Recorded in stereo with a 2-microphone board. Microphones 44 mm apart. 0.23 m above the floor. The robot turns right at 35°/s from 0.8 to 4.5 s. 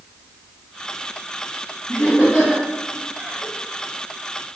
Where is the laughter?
55° left (ahead or behind), 1.8 m; by 3.5 s 15° left (ahead or behind), 1.8 m.